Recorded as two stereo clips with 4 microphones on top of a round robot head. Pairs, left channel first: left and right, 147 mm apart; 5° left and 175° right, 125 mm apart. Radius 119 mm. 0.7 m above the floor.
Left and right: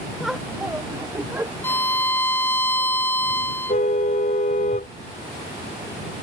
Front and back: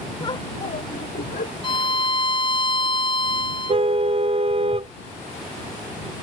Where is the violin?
20° left.